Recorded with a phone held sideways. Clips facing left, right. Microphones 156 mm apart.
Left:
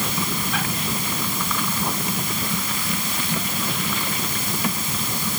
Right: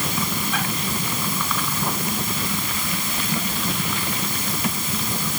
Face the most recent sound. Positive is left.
No sound to turn to.